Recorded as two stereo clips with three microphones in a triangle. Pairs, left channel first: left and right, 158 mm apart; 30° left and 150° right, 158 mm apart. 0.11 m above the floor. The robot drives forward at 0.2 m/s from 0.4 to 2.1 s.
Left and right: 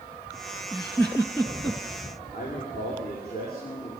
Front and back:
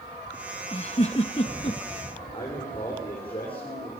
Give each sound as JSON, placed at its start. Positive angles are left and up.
{"t": 0.7, "sound": "a giggle", "azimuth_deg": 5, "distance_m": 1.1}
{"t": 2.3, "sound": "a man speaking", "azimuth_deg": 85, "distance_m": 6.5}